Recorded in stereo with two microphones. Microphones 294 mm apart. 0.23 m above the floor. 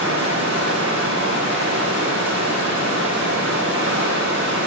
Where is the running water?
40° right (ahead or behind), 4.5 m.